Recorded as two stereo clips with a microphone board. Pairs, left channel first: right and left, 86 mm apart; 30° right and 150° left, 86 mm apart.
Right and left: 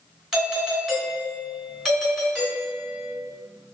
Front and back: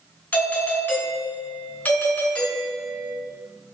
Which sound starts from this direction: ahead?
A doorbell, at 0.3 s.